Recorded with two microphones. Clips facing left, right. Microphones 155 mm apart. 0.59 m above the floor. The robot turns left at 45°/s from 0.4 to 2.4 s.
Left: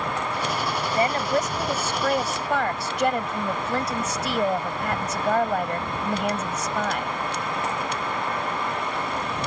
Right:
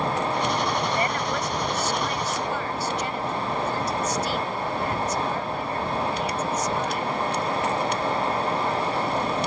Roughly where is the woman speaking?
Behind left.